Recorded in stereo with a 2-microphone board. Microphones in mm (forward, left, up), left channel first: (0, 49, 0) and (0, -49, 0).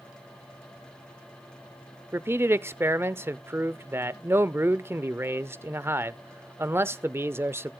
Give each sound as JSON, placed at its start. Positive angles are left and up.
{"t": 2.1, "sound": "a man speaking", "side_deg": -25, "distance_m": 0.6}